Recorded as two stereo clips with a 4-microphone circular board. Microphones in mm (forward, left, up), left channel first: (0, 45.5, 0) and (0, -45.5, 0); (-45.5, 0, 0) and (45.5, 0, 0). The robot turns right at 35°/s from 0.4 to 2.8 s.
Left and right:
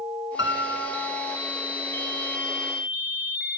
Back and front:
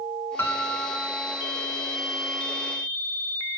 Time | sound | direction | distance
0.4 | a piano | 125° right | 0.6 m